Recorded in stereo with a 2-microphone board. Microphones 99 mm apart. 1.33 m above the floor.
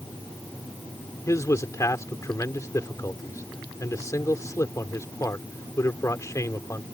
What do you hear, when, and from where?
1.3 s a man speaking: 30° left (ahead or behind)